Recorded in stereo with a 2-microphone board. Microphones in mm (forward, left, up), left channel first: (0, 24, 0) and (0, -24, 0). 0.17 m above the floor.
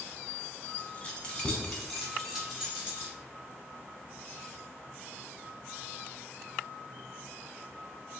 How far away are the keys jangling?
About 1.1 m.